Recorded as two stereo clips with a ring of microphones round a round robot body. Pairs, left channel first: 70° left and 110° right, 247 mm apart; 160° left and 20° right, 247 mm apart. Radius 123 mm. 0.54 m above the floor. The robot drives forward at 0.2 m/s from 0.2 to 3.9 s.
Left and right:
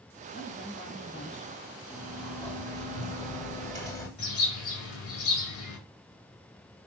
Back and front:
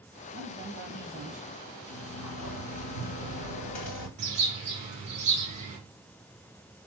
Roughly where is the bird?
Ahead left.